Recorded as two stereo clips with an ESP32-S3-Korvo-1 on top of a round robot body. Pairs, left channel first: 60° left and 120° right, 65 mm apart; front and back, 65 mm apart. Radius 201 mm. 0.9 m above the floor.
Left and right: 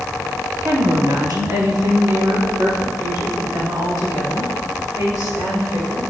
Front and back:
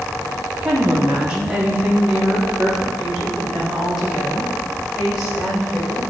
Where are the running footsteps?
No running footsteps in this recording.